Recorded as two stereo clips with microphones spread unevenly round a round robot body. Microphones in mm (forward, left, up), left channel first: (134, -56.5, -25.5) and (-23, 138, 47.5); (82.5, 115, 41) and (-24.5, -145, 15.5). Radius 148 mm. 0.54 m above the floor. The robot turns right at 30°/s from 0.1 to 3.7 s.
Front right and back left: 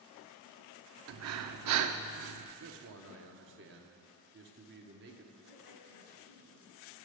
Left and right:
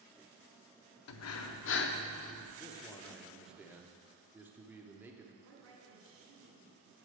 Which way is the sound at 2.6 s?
140° left.